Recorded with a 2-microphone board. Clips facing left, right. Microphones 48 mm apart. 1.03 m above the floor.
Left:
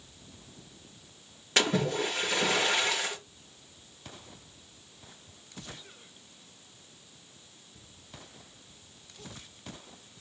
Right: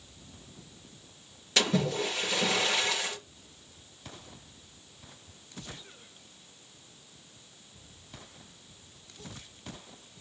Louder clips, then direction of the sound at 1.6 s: Left 1 dB; 30° left (ahead or behind).